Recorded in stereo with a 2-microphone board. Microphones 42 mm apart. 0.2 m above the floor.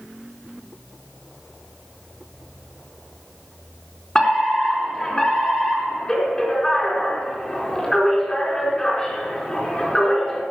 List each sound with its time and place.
4.2 s a fire alarm: 15° left (ahead or behind), 4 m